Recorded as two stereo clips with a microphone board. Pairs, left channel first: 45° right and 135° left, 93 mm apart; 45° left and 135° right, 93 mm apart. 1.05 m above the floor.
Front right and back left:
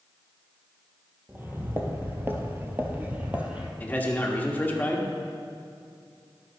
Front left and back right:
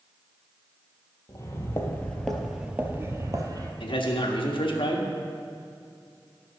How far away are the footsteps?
About 1.5 m.